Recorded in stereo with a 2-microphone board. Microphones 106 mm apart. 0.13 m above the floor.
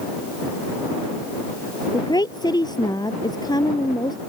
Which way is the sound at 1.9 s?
45° left (ahead or behind).